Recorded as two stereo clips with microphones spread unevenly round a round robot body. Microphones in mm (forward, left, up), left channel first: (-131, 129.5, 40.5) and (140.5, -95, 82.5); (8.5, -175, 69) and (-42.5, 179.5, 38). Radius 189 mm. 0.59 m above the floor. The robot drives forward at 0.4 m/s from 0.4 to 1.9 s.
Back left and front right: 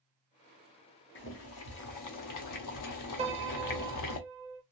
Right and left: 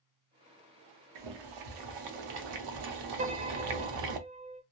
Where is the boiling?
80° left, 0.8 m; by 4.2 s 105° left, 0.8 m.